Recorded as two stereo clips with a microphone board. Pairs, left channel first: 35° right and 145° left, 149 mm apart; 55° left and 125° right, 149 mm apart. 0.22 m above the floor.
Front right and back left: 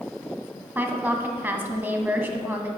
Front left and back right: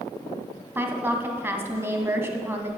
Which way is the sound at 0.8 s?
165° right.